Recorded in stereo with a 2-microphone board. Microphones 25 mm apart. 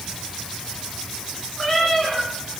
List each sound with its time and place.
1.6 s a cat meowing: 20° left (ahead or behind), 4.5 m